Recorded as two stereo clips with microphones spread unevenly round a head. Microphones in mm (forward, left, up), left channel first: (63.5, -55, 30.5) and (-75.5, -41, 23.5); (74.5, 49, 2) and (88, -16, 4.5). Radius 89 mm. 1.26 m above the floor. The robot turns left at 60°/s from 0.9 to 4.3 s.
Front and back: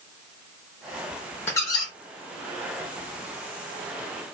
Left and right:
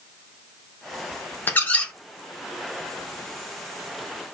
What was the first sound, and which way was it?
A squeak, 60° left.